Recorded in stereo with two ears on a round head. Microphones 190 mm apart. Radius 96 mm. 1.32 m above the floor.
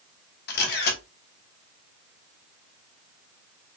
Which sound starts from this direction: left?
A camera shutter, at 0.5 s.